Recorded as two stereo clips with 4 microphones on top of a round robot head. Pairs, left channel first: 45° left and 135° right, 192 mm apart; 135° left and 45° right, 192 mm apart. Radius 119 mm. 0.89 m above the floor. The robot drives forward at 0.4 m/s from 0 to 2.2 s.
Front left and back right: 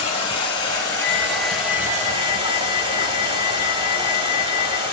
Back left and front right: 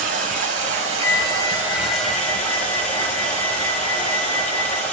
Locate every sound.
0.0 s running water: 5° right, 0.9 m; by 4.9 s 160° right, 0.7 m
1.0 s a flute: 170° left, 3.5 m; by 4.8 s 175° left, 3.5 m